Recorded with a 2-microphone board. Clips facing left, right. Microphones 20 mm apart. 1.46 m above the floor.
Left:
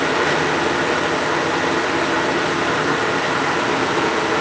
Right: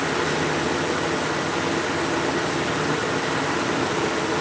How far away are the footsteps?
I don't hear footsteps.